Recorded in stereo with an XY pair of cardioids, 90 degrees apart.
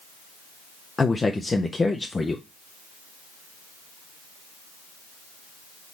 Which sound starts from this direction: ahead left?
A man speaking, at 1.0 s.